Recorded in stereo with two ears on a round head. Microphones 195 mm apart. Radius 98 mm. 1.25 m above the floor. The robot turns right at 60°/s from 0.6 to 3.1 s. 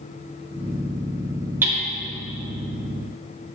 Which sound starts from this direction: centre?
Hammering, at 1.6 s.